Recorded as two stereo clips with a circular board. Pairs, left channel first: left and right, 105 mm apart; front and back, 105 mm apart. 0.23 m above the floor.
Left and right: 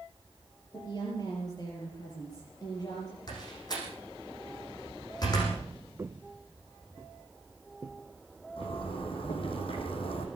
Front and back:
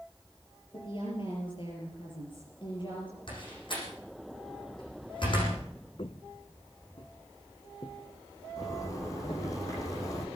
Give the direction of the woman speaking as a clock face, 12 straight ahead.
11 o'clock.